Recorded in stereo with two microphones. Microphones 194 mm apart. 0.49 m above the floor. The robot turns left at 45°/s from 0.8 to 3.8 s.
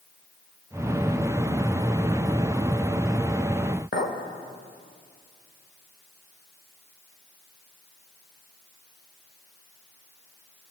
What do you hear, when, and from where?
3.9 s a clink: 65° left (ahead or behind), 1.2 m